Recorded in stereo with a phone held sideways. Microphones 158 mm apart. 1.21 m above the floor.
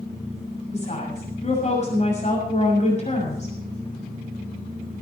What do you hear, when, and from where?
0.7 s a woman speaking: 45° left (ahead or behind), 6.5 m